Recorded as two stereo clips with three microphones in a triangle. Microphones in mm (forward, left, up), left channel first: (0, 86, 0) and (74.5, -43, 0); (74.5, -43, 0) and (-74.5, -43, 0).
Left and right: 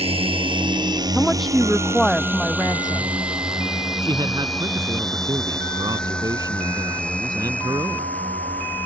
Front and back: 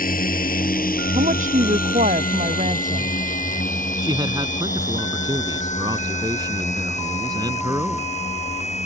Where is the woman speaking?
150° right.